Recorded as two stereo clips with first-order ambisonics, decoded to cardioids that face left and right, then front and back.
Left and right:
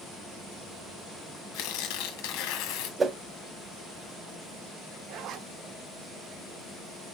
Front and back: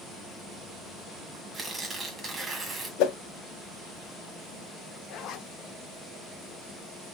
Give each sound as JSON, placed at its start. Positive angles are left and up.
{"t": 1.5, "sound": "tearing paper", "azimuth_deg": 105, "distance_m": 1.5}
{"t": 3.0, "sound": "a whoosh", "azimuth_deg": -20, "distance_m": 0.6}
{"t": 5.1, "sound": "a zipper", "azimuth_deg": -45, "distance_m": 0.6}